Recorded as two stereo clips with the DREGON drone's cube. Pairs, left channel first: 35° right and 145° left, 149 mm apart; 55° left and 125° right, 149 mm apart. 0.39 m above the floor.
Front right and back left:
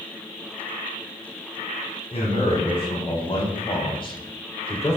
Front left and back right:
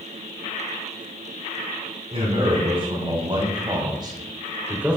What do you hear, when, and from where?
2.1 s a man speaking: 80° right, 2.5 m; by 5.0 s 50° right, 1.0 m